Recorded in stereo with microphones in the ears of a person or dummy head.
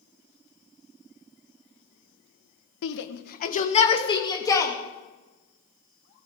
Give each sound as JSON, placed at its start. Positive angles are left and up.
{"t": 2.8, "sound": "a shout", "side_deg": 60, "distance_m": 1.1}